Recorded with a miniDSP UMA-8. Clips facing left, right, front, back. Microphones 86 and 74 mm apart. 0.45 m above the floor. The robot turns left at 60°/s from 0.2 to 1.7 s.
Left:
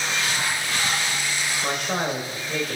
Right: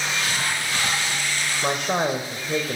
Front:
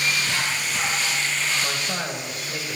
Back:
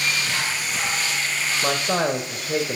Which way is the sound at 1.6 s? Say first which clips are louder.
Right 4 dB, back 6 dB; 145° right.